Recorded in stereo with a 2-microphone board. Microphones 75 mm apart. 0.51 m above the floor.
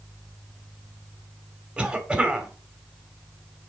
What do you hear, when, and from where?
1.8 s a cough: 15° right (ahead or behind), 1.5 m